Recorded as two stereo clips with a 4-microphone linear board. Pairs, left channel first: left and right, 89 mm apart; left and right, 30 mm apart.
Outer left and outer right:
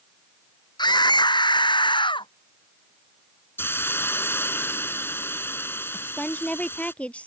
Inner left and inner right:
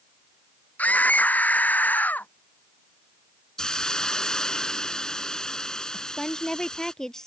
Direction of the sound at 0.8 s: 50° left (ahead or behind).